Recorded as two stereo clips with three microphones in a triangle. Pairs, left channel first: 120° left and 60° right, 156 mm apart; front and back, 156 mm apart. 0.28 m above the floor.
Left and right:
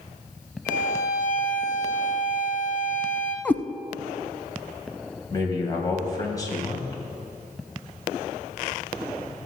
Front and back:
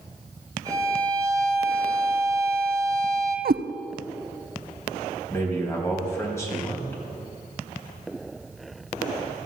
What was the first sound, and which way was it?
A violin, 120° left.